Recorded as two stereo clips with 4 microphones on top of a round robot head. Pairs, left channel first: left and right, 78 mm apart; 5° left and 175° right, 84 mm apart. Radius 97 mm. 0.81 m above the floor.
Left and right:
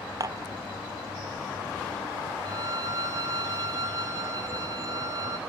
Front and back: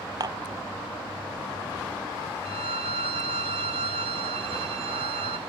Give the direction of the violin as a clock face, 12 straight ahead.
5 o'clock.